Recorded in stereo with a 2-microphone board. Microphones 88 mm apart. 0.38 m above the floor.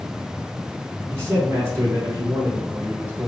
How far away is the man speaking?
About 4 m.